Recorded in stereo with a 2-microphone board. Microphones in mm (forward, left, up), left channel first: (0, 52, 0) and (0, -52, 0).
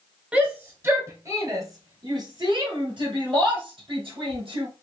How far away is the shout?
About 1.2 m.